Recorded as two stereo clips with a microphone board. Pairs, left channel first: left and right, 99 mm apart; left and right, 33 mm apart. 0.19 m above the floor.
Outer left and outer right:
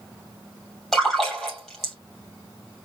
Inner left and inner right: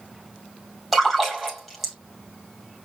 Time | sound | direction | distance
0.9 | a splash | 5° left (ahead or behind) | 3 m